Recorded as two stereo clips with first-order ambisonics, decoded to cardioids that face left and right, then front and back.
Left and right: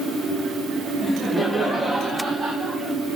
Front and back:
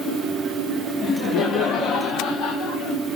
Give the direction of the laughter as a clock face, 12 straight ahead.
11 o'clock.